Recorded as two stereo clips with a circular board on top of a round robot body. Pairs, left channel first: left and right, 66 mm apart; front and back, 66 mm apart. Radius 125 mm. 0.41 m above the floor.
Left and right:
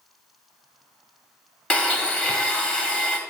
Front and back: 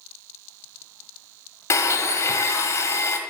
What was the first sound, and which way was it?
A blender, 25° left.